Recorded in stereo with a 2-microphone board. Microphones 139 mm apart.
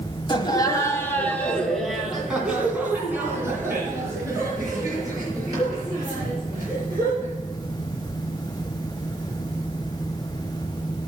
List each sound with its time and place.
0.3 s laughter: 35° left (ahead or behind), 1.8 m; by 7.3 s 30° right (ahead or behind), 7 m